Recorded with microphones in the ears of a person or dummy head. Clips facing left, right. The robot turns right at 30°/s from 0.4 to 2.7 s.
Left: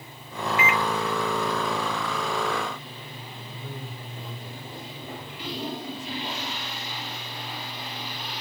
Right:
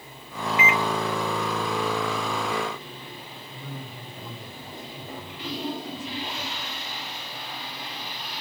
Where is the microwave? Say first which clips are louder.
Right 1 dB; 50° left (ahead or behind), 0.6 m; by 0.8 s 55° left (ahead or behind), 0.6 m.